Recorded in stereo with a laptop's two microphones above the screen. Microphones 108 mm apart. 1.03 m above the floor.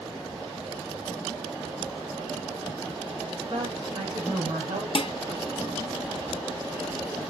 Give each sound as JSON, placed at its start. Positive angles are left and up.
{"t": 3.5, "sound": "a woman speaking", "side_deg": -55, "distance_m": 3.5}
{"t": 5.0, "sound": "dishes clattering", "side_deg": 55, "distance_m": 0.5}